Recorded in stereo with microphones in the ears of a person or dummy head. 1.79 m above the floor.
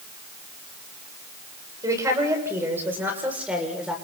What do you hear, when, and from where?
1.8 s a woman speaking: 15° right (ahead or behind), 7.5 m; by 4.0 s 5° right (ahead or behind), 7 m